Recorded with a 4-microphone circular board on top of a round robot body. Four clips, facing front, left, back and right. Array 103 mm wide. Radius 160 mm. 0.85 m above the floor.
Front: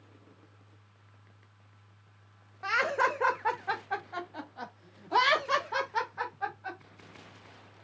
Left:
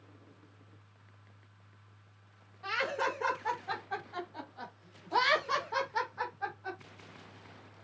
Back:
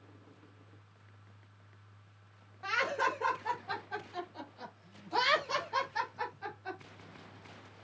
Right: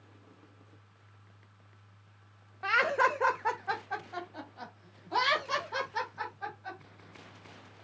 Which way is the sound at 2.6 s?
65° right.